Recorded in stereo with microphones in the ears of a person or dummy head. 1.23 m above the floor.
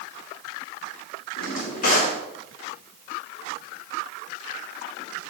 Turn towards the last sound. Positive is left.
turn(degrees=55)  # may be behind; listen again after turning